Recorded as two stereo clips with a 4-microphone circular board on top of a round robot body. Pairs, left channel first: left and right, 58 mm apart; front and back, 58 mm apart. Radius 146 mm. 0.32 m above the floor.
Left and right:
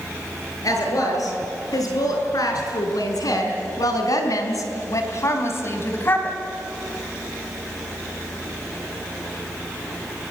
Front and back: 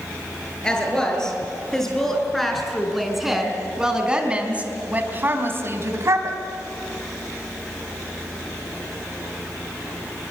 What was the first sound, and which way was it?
A woman speaking, 75° left.